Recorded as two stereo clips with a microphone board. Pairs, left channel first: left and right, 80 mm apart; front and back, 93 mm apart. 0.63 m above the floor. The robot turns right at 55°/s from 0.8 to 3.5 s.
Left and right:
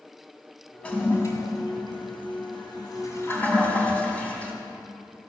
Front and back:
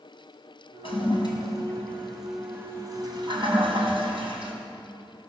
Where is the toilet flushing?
15° left, 4.5 m; by 4.5 s 165° left, 4.5 m.